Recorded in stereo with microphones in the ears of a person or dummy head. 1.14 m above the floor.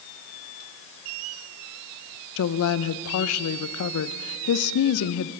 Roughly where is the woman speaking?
Left.